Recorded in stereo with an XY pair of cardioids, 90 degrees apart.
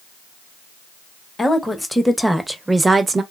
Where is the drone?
I don't hear a drone.